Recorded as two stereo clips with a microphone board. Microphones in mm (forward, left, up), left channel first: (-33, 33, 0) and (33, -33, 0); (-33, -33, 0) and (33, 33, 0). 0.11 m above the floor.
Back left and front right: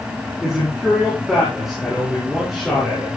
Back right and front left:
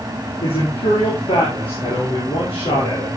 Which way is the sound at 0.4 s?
130° right.